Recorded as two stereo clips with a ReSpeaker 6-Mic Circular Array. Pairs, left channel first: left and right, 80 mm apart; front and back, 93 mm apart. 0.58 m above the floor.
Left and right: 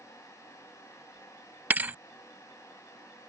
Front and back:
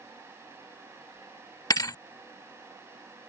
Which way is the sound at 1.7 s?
30° right.